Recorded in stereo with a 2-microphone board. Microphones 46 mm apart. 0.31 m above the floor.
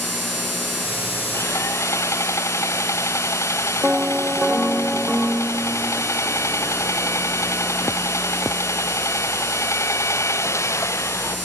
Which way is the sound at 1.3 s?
70° left (ahead or behind).